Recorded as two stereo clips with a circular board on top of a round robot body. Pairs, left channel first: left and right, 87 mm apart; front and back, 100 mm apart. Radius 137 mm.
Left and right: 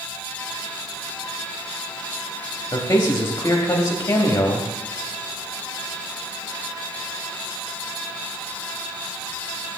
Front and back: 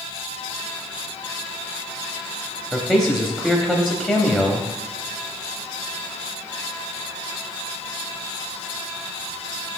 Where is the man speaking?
70° left, 1.0 m.